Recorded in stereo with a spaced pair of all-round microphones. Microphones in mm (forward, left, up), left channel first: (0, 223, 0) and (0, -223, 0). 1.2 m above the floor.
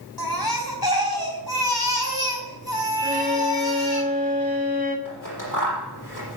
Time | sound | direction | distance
0.2 | a baby crying | 55° left (ahead or behind) | 4 m
3.0 | a violin | 20° right (ahead or behind) | 3.5 m
5.0 | scissors | 45° left (ahead or behind) | 7 m